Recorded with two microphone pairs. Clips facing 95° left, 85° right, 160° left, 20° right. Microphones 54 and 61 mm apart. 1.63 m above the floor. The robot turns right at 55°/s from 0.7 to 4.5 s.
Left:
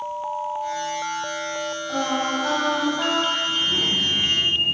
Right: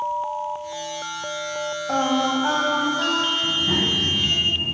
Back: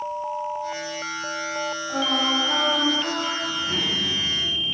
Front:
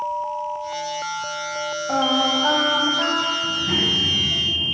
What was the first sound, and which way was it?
Singing, 50° right.